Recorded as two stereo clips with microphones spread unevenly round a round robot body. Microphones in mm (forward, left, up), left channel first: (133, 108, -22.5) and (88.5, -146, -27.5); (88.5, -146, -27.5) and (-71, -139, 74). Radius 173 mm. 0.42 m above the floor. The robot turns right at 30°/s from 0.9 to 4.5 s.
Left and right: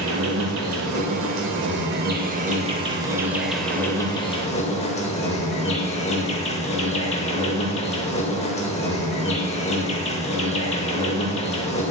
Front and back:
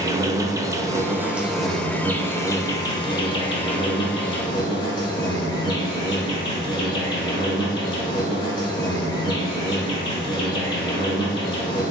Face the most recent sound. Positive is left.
turn(degrees=20)